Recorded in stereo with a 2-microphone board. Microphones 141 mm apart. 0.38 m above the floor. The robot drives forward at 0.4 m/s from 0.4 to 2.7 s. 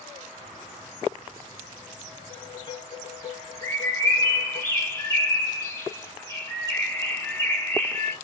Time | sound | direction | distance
2.3 | dishes clattering | 35° left (ahead or behind) | 2.0 m
3.6 | a bird | 20° left (ahead or behind) | 1.2 m